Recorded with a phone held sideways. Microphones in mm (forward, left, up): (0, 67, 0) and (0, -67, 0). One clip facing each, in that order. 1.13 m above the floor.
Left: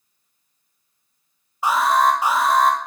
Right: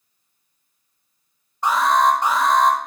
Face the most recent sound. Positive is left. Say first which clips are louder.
# even
turn(degrees=5)  # may be behind; listen again after turning